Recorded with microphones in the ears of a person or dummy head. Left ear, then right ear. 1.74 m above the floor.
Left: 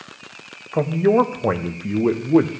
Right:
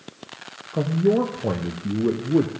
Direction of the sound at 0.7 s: 50° left (ahead or behind).